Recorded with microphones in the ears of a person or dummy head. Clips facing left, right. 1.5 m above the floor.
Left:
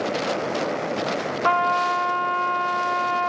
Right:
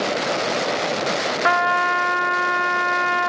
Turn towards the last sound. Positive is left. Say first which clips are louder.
# even
turn(degrees=-15)  # may be behind; listen again after turning